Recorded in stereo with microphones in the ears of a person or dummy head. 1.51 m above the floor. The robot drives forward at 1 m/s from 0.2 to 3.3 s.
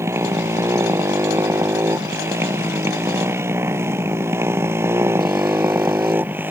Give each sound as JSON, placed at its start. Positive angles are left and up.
{"t": 0.0, "sound": "a motorcycle", "side_deg": -10}